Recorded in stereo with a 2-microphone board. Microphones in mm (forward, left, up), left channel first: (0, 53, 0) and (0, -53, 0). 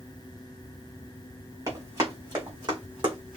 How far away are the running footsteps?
About 4 m.